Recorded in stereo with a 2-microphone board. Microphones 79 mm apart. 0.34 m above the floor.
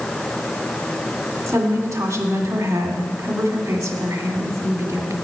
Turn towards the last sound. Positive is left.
turn(degrees=-45)  # may be behind; listen again after turning